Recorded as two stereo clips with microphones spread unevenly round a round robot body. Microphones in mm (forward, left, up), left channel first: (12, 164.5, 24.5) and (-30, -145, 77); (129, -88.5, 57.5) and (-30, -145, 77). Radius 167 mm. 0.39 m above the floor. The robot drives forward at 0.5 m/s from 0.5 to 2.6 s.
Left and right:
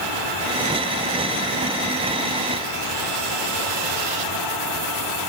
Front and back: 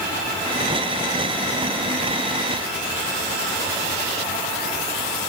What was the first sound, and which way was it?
Only background noise.